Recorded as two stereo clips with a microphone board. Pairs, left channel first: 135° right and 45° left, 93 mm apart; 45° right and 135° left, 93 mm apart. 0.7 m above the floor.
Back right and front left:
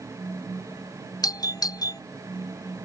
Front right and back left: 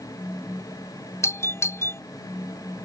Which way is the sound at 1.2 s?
100° right.